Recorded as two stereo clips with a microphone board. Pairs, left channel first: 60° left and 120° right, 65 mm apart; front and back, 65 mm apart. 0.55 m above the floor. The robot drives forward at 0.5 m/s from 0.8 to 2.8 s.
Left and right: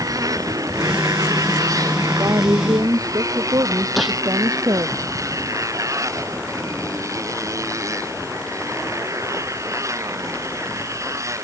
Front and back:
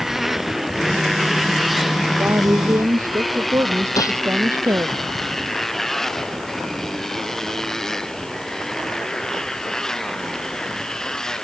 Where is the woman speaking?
135° right; by 5.0 s 140° right.